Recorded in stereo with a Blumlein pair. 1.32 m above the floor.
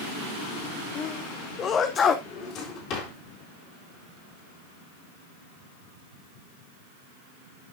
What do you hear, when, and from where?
0.9 s a sneeze: 25° left, 0.7 m
2.2 s a drawer: 35° left, 4 m